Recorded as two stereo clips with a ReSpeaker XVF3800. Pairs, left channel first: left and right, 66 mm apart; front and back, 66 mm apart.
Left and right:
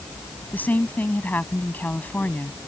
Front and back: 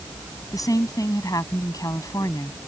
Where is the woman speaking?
25° left.